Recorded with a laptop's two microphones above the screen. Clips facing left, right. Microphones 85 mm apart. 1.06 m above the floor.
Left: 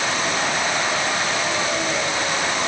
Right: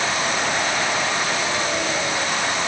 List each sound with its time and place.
Only background noise.